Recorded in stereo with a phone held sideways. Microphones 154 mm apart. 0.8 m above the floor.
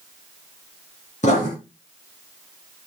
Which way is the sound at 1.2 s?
50° left (ahead or behind).